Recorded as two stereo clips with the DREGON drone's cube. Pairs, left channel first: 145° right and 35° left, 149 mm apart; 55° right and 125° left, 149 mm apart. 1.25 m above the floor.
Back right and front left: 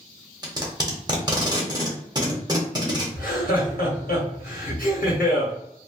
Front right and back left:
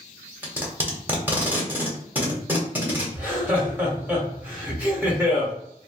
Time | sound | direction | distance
0.4 | tape being pulled | 60° left | 1.0 m
3.1 | laughter | 155° right | 1.5 m